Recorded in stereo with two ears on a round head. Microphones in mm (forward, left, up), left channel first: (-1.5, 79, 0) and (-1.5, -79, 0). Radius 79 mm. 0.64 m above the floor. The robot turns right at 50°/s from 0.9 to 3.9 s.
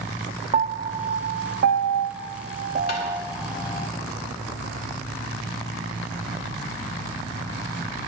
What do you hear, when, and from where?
0.5 s a piano: 35° right (ahead or behind), 0.5 m; by 3.9 s 10° left (ahead or behind), 0.5 m
2.9 s tapping: 60° left (ahead or behind), 2 m